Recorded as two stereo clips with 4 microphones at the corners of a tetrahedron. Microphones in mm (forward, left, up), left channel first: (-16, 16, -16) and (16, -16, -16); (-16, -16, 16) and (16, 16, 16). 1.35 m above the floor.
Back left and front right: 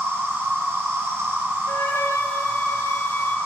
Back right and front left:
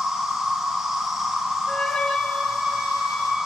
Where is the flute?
155° left, 1.2 m.